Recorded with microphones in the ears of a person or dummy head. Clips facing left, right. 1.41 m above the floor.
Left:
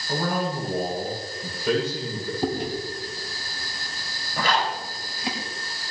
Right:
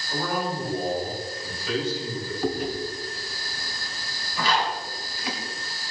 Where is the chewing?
25° left (ahead or behind), 4.5 m.